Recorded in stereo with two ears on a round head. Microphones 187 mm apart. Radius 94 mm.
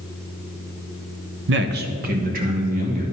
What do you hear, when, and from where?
1.5 s a man speaking: 65° right (ahead or behind), 0.6 m; by 3.0 s 40° right (ahead or behind), 3 m